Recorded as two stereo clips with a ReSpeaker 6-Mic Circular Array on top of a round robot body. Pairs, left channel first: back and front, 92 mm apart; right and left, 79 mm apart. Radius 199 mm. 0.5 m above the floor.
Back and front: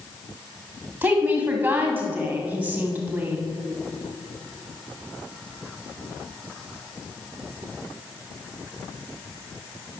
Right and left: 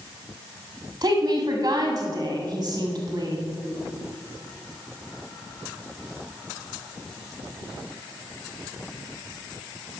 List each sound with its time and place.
1.0 s a woman speaking: 50° left, 2 m